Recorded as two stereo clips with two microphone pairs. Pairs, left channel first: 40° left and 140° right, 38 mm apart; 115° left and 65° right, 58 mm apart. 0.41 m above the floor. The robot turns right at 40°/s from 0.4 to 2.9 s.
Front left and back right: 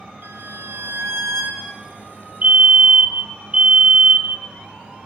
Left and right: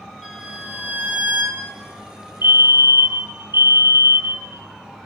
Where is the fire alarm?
100° right, 3 m; by 4.5 s 80° right, 3 m.